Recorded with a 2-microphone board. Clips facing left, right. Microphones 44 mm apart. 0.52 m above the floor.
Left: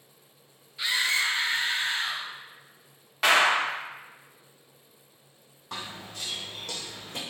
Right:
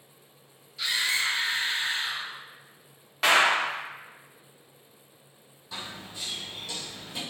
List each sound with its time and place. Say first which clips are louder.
0.8 s a scream: left 1 dB; 20° left (ahead or behind), 0.7 m; by 2.3 s 60° left (ahead or behind), 2 m
3.2 s a clap: even; 5° left (ahead or behind), 0.8 m
5.7 s running footsteps: left 1 dB; 65° left (ahead or behind), 1.1 m; by 7.2 s 55° left (ahead or behind), 1.4 m